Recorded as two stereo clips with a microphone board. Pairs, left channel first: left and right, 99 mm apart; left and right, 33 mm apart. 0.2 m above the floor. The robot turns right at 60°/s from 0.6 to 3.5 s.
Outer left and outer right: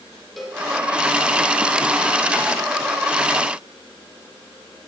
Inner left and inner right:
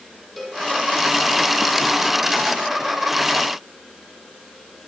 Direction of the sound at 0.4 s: Centre (ahead or behind).